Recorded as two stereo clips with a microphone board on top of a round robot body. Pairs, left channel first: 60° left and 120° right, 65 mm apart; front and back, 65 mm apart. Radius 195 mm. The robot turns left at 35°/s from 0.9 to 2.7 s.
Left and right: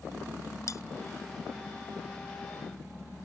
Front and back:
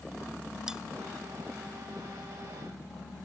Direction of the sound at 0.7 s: 100° left.